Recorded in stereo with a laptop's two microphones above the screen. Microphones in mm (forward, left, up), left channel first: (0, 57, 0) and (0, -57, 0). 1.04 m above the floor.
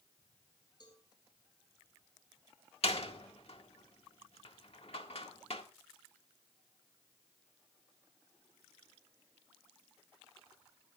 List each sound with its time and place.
0.8 s a cowbell: 40° left (ahead or behind), 7 m
2.8 s a door slam: 60° left (ahead or behind), 1.8 m